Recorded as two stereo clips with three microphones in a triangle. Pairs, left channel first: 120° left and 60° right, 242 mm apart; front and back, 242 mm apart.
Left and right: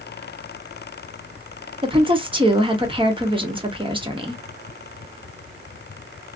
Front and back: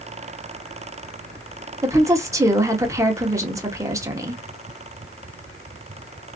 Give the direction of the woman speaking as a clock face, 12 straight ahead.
4 o'clock.